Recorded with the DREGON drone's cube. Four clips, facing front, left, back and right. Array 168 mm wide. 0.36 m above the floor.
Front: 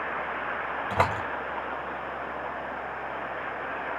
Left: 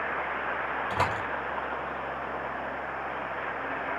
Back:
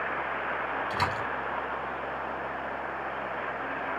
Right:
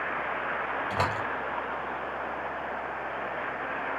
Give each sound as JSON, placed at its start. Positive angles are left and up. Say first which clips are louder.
{"t": 0.9, "sound": "a door slam", "louder": "left 1 dB, front 7 dB", "azimuth_deg": 5, "distance_m": 8.0}